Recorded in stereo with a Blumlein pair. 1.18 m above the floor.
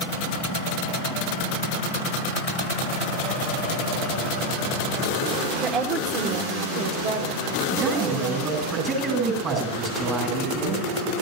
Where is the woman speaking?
25° right, 2.5 m; by 8.5 s 50° right, 4 m.